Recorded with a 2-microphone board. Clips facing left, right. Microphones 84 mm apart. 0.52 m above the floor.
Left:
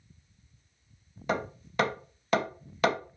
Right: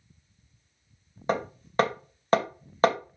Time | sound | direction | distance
1.3 | hammering | 40° right (ahead or behind) | 2.5 m